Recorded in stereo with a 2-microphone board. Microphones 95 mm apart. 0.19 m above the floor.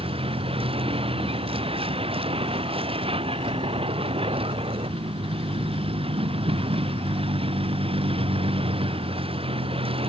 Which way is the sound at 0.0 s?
80° right.